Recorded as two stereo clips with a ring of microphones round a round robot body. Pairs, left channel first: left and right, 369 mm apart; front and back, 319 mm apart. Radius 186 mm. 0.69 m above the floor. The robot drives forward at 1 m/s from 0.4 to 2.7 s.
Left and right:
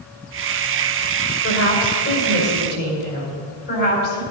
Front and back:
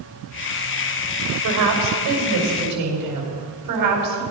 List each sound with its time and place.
1.4 s a woman speaking: 145° left, 3.5 m; by 4.2 s 155° left, 4.5 m